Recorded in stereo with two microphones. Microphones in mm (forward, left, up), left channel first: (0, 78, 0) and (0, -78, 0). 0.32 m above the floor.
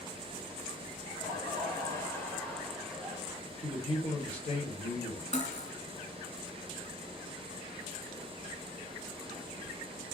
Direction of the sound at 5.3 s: 50° left (ahead or behind).